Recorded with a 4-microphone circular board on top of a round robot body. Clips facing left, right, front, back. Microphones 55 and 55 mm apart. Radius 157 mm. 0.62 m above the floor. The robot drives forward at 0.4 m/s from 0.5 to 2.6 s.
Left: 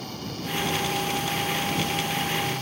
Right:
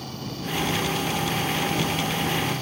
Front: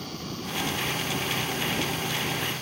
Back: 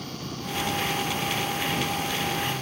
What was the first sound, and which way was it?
Only background noise.